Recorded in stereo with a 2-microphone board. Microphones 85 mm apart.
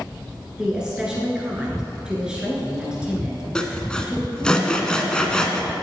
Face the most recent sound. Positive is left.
turn(degrees=10)  # may be behind; listen again after turning